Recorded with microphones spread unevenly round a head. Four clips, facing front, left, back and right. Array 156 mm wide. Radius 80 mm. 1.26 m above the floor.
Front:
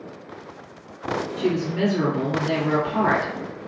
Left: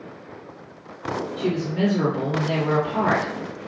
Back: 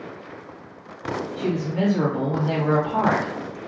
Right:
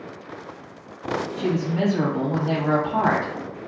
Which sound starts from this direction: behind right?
A woman speaking, at 1.4 s.